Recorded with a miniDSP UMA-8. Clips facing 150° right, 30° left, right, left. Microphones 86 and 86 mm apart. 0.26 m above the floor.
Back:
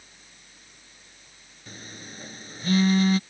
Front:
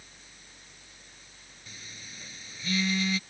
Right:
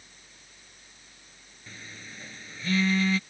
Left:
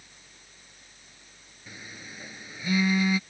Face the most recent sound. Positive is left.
turn(degrees=165)